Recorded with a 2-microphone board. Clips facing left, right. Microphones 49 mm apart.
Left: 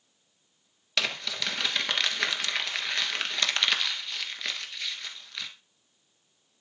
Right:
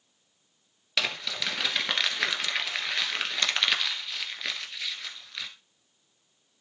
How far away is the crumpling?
About 1.5 m.